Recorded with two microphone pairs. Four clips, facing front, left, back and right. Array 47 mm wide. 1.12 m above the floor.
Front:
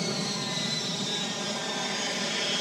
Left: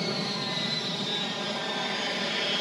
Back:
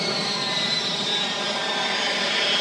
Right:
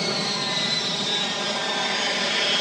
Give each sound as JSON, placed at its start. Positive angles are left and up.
{"t": 0.0, "sound": "an aircraft", "azimuth_deg": -135}